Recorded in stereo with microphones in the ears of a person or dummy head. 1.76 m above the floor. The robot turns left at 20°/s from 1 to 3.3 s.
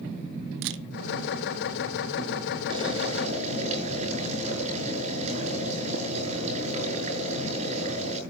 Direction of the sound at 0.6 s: 65° right (ahead or behind).